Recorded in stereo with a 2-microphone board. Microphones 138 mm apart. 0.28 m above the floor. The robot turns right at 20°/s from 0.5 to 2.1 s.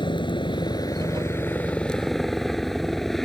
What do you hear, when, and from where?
0.0 s a helicopter: 145° left; by 3.2 s straight behind